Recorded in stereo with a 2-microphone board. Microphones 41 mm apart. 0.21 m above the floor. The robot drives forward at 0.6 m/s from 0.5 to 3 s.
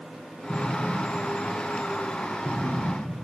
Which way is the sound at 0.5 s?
50° left (ahead or behind).